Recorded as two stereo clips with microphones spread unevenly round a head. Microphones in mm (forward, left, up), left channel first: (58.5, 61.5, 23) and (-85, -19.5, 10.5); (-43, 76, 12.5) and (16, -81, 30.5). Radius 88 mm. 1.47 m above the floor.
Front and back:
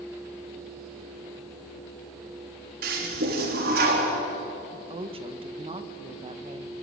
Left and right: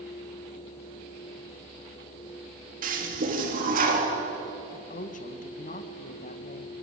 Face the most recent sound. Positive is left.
turn(degrees=150)